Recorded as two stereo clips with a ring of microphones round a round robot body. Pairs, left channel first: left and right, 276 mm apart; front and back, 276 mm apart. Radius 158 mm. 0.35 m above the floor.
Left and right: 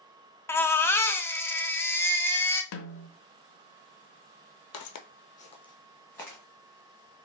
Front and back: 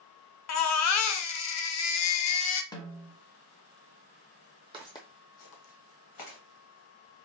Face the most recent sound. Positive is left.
turn(degrees=5)